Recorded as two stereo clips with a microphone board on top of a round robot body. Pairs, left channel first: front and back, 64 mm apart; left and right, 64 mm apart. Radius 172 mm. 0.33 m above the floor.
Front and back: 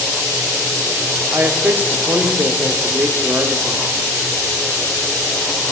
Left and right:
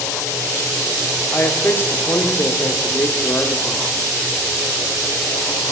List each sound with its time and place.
1.3 s a man speaking: 135° left, 1.6 m